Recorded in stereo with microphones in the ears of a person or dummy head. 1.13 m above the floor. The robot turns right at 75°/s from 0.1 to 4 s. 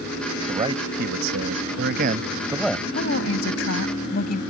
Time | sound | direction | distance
0.5 | a man speaking | 160° right | ?
3.0 | a woman speaking | 60° left | ?